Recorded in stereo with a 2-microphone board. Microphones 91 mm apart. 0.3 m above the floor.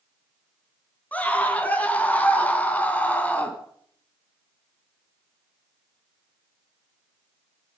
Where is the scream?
15° left (ahead or behind), 3.5 m.